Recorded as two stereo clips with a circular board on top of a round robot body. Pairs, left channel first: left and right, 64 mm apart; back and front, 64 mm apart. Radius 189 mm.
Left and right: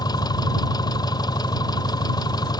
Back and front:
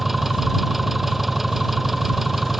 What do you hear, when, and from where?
0.0 s an engine running: 85° left